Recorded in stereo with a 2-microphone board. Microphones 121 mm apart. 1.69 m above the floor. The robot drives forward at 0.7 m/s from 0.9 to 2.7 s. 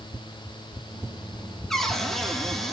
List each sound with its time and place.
1.7 s a cupboard door: 5° left (ahead or behind), 3 m